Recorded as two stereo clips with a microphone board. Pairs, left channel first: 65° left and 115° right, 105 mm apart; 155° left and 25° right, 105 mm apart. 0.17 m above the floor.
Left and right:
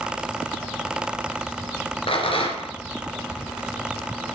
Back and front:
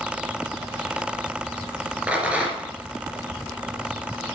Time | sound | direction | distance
2.1 | a rattle | 55° left | 3 m